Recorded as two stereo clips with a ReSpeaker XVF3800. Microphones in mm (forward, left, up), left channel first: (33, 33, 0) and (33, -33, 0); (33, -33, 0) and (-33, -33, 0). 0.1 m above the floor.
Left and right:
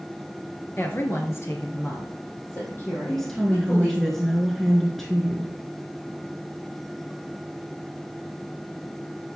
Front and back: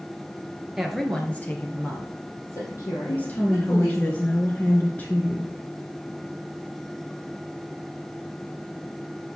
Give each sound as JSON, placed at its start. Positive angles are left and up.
{"t": 0.8, "sound": "a woman speaking", "azimuth_deg": 105, "distance_m": 1.4}
{"t": 3.1, "sound": "a woman speaking", "azimuth_deg": 10, "distance_m": 1.3}